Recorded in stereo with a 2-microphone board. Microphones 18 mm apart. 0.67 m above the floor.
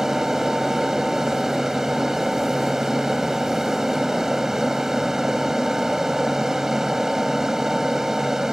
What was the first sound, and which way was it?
An aircraft, 35° right (ahead or behind).